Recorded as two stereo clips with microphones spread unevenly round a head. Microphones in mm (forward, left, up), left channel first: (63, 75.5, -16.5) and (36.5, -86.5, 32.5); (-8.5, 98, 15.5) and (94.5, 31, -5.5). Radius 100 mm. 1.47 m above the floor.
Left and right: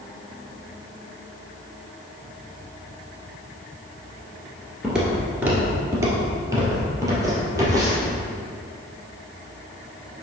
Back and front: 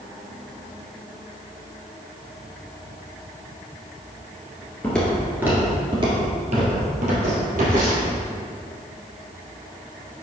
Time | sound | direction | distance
4.8 | footsteps | 155° right | 1.7 m